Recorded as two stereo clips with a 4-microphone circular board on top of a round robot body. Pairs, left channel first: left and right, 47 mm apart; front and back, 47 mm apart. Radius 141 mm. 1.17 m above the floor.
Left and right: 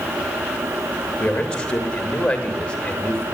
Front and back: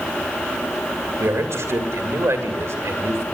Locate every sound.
1.2 s a man speaking: 165° left, 3 m